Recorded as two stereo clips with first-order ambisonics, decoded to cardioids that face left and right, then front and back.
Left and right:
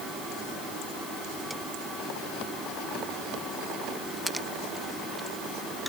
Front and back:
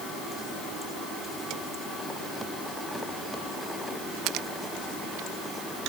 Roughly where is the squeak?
I don't hear a squeak.